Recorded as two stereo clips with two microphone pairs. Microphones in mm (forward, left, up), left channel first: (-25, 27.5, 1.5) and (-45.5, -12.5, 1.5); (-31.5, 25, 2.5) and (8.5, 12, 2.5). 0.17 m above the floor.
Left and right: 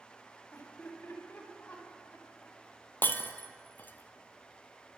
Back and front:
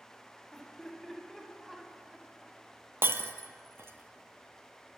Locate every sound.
0.5 s laughter: 95° left, 4.5 m; by 2.6 s 60° left, 2.5 m
3.0 s breaking glass: 15° left, 0.7 m